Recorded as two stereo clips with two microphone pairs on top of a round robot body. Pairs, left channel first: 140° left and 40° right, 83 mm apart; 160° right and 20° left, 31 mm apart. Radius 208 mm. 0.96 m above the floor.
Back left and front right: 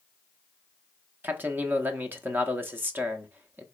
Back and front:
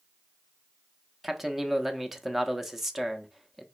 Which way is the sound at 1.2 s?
60° right.